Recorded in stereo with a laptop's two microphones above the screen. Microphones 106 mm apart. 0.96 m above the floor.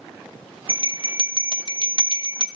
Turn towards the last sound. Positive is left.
turn(degrees=-50)  # may be behind; listen again after turning